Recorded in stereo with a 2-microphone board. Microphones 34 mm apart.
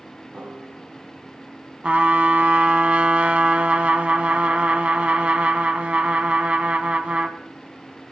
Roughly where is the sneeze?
I don't hear a sneeze.